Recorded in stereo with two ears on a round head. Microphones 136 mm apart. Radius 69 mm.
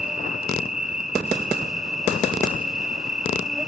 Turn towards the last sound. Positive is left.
turn(degrees=-5)  # may be behind; listen again after turning